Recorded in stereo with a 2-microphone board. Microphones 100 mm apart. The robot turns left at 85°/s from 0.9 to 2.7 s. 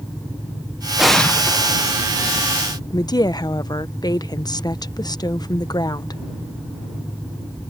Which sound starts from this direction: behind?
An explosion, at 1.0 s.